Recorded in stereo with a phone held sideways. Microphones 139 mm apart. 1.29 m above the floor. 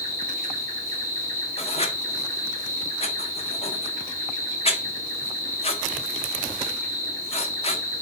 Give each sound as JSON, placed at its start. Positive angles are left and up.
{"t": 0.0, "sound": "an insect", "side_deg": -70, "distance_m": 1.8}
{"t": 1.6, "sound": "writing", "side_deg": 45, "distance_m": 0.6}